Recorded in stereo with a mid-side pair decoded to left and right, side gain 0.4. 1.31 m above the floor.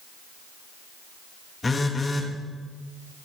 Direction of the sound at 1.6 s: 30° left.